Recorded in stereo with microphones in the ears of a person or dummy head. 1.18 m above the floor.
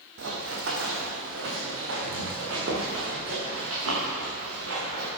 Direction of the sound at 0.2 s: 65° right (ahead or behind).